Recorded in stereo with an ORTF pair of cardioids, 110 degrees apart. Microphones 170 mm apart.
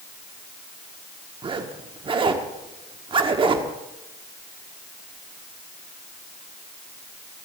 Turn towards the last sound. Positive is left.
turn(degrees=-30)